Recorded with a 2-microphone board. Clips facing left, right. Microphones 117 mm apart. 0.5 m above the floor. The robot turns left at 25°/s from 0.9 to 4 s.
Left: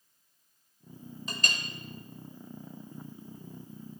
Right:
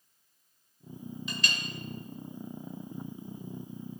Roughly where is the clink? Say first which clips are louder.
Left 1 dB; left.